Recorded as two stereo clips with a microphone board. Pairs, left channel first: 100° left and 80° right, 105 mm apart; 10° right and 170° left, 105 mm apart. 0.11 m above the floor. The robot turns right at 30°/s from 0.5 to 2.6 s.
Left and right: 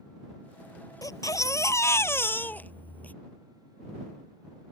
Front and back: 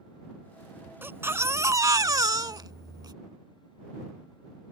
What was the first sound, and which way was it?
A baby crying, 115° left.